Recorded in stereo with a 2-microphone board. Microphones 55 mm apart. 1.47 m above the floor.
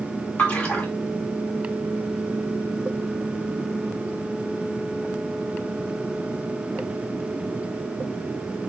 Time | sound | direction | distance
0.4 | a splash | 25° left (ahead or behind) | 2.5 m